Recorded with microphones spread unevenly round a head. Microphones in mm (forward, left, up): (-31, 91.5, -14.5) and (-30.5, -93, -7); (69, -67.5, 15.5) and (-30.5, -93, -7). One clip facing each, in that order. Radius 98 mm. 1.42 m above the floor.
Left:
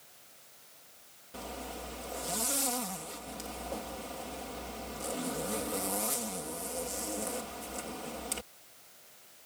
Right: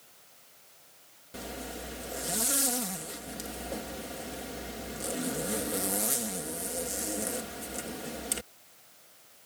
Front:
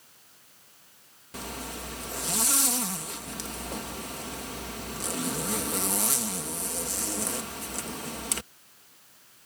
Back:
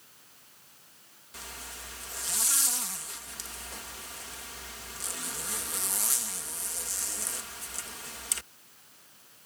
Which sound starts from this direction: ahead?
A zipper, at 1.3 s.